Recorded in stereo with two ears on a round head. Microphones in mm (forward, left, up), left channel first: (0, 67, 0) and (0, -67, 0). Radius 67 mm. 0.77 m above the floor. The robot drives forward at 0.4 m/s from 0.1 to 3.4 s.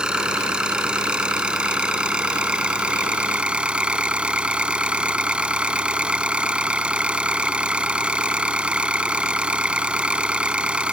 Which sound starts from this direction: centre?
An engine running, at 0.0 s.